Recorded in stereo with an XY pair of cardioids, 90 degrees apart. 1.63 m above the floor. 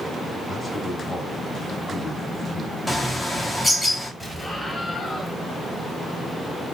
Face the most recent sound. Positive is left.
turn(degrees=15)